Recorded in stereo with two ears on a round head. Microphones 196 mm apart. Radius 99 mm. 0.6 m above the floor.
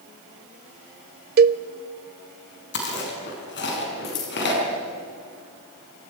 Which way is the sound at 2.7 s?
55° left (ahead or behind).